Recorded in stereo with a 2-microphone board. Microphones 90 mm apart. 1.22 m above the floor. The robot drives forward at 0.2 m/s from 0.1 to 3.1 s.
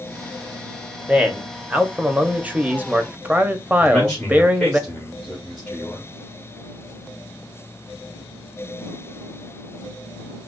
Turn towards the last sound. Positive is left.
turn(degrees=5)  # may be behind; listen again after turning